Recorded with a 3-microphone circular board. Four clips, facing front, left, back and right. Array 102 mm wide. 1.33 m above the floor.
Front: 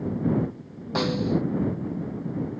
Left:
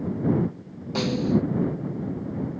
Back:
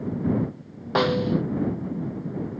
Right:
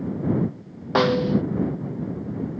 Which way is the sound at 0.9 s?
115° right.